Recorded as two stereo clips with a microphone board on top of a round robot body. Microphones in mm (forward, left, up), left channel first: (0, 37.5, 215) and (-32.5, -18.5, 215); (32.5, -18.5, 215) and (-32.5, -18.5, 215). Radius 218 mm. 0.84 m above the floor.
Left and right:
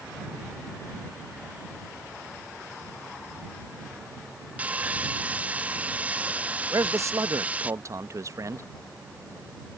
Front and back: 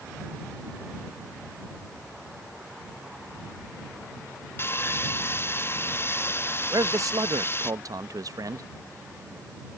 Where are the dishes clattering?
No dishes clattering in this recording.